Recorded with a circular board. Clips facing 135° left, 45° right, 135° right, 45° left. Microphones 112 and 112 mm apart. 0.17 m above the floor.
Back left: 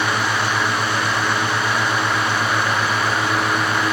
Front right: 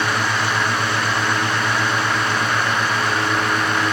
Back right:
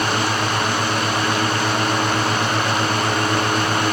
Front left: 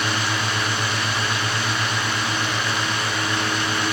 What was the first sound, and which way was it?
Only background noise.